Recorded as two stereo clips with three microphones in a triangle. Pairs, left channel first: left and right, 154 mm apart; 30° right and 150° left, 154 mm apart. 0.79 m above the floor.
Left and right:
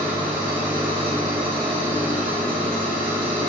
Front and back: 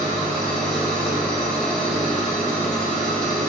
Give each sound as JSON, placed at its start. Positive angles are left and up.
{"t": 0.0, "sound": "an engine running", "azimuth_deg": -115, "distance_m": 1.5}